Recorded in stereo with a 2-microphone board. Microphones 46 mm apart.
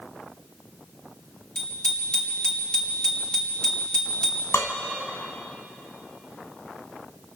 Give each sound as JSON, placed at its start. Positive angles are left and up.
{"t": 1.6, "sound": "a bicycle bell", "side_deg": 20, "distance_m": 5.0}
{"t": 4.5, "sound": "dishes clattering", "side_deg": 70, "distance_m": 1.8}